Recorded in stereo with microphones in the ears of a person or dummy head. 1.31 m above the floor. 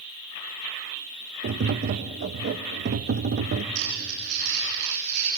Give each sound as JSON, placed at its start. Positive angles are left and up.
{"t": 1.4, "sound": "tapping", "side_deg": -55, "distance_m": 0.7}
{"t": 3.8, "sound": "crumpling", "side_deg": -50, "distance_m": 7.5}